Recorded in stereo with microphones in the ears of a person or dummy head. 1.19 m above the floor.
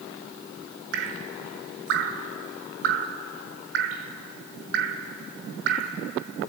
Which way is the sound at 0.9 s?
65° right (ahead or behind).